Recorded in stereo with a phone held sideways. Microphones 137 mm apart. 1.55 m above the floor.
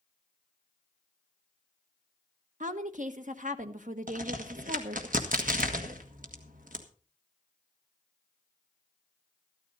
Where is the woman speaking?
70° right (ahead or behind), 1.3 m.